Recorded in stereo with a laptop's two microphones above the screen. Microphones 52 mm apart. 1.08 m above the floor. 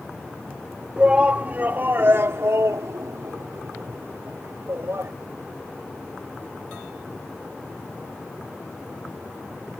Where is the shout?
20° right (ahead or behind); by 5.1 s 60° right (ahead or behind).